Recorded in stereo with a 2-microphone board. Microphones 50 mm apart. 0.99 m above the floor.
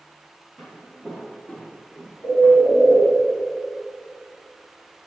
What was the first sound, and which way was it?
Footsteps, 5° right (ahead or behind).